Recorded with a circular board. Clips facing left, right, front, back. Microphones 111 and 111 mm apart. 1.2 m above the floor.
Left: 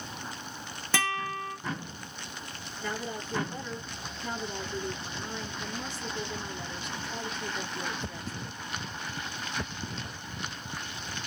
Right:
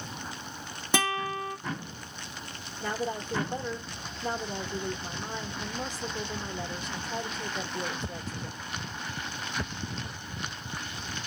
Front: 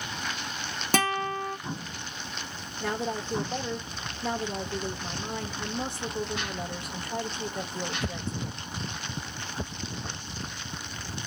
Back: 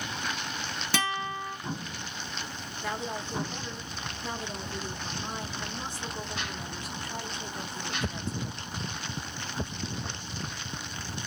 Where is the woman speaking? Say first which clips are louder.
Right 4 dB, front 4 dB; 35° right, 1.3 m.